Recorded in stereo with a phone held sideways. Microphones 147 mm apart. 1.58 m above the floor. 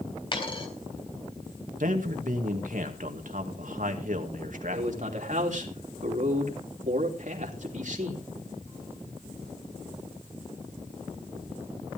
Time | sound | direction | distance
0.3 | a dropped coin | 35° left (ahead or behind) | 4 m
1.8 | a man speaking | 65° right (ahead or behind) | 2 m
4.7 | a man speaking | 60° right (ahead or behind) | 3 m